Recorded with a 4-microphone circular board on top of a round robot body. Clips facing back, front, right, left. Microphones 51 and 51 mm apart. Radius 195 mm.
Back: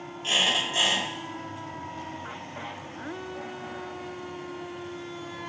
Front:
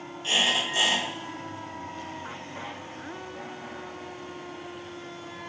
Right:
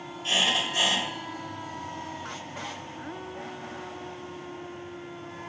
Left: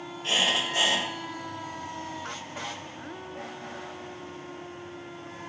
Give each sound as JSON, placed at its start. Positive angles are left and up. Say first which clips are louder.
{"t": 0.2, "sound": "a squeak", "louder": "even, even", "azimuth_deg": 125, "distance_m": 1.2}